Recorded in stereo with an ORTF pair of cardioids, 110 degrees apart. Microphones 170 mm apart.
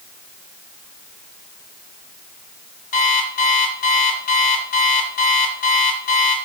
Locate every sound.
2.9 s an alarm clock: 55° left, 3.5 m